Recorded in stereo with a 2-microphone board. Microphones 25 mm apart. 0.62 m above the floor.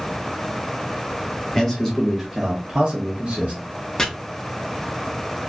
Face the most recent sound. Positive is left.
turn(degrees=25)  # may be behind; listen again after turning